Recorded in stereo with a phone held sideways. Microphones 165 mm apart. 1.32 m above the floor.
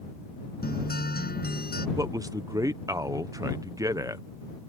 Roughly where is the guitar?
Left.